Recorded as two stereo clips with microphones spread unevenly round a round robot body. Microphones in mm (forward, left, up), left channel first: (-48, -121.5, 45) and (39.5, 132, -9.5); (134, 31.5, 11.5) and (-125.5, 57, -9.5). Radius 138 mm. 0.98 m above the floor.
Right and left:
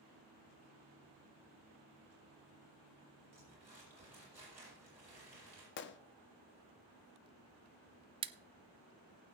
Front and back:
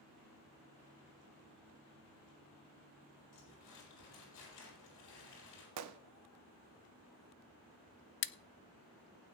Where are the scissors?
20° left, 0.5 m.